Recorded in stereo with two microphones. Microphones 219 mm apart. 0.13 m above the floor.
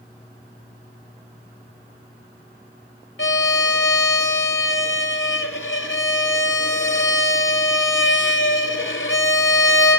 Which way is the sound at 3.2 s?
70° left (ahead or behind).